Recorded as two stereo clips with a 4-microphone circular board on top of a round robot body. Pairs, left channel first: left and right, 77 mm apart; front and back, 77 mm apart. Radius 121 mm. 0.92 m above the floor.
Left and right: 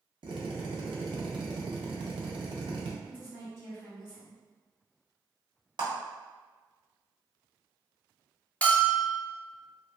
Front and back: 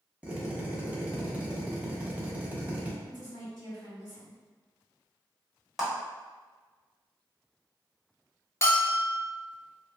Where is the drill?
110° right, 0.7 m.